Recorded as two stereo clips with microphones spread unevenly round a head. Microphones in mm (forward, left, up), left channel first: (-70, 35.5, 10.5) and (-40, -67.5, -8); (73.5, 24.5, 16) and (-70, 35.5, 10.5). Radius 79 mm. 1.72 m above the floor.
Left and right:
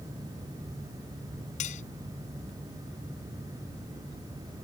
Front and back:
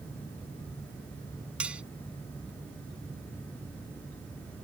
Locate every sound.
1.6 s cutlery clinking: 95° left